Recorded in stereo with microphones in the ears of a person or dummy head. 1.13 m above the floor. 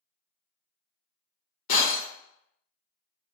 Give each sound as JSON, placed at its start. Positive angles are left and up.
{"t": 1.7, "sound": "breaking glass", "side_deg": 55, "distance_m": 0.9}